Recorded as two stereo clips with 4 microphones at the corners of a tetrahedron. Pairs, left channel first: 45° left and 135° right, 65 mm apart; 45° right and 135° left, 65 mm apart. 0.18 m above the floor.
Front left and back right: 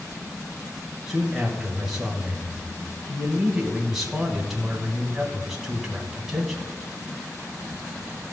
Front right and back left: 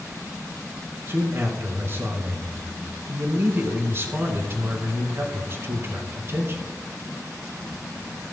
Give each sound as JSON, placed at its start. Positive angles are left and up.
{"t": 1.1, "sound": "a man speaking", "azimuth_deg": 145, "distance_m": 1.4}